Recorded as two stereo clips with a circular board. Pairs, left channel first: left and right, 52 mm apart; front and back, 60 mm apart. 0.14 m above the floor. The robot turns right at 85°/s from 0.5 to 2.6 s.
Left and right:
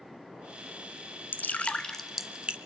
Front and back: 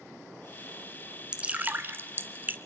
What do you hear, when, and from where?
1.3 s dripping: 115° left, 0.8 m; by 2.6 s 140° right, 0.8 m